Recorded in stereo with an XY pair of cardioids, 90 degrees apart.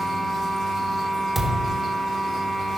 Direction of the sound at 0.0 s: 65° right.